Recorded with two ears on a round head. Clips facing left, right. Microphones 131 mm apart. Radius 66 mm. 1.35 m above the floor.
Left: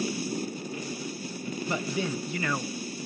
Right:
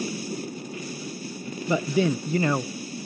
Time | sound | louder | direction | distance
1.7 | a man speaking | right 9 dB | 75° right (ahead or behind) | 0.6 m